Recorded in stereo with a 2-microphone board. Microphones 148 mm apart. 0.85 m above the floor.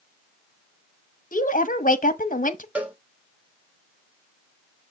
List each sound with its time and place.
1.3 s a woman speaking: 60° left (ahead or behind), 1.1 m
2.8 s a cowbell: 10° right (ahead or behind), 1.3 m